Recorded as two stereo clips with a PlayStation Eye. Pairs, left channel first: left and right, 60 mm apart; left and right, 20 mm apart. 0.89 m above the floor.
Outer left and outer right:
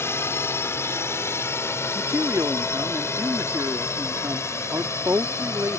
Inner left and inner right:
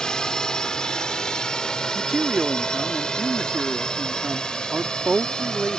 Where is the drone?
40° left (ahead or behind); by 5.8 s 45° left (ahead or behind).